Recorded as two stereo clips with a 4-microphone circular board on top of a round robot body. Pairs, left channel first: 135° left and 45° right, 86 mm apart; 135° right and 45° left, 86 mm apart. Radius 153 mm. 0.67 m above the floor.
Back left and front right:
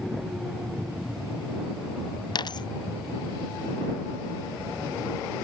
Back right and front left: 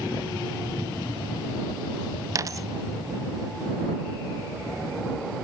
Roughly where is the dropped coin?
Left.